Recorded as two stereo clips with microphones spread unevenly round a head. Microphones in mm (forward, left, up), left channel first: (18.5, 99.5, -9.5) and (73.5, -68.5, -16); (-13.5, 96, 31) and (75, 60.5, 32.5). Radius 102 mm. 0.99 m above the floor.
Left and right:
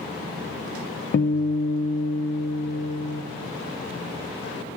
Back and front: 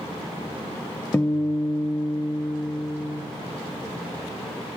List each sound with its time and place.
1.1 s a guitar: 90° left, 0.7 m